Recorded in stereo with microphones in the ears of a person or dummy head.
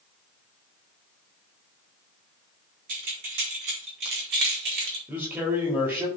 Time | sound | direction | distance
2.9 | keys jangling | 55° right (ahead or behind) | 3 m
5.1 | a man speaking | 15° right (ahead or behind) | 3.5 m